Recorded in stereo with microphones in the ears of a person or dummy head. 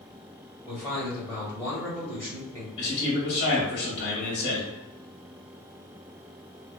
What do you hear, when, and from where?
0.7 s a man speaking: 15° left (ahead or behind), 1.5 m
2.8 s a man speaking: 60° left (ahead or behind), 1.5 m